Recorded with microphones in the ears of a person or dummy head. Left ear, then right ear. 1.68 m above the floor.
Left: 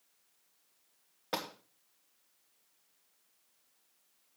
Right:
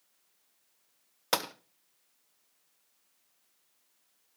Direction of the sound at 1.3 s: 60° right (ahead or behind).